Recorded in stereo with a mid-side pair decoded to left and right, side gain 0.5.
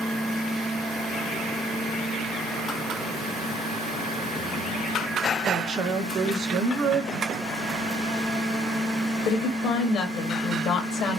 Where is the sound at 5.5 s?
50° right, 1.6 m.